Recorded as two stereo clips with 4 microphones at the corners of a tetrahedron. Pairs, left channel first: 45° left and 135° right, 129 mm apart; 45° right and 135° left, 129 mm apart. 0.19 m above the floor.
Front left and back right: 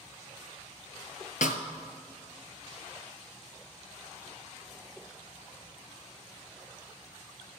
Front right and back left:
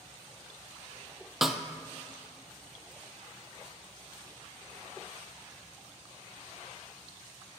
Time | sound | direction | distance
1.4 | a snare drum | 45° left | 0.7 m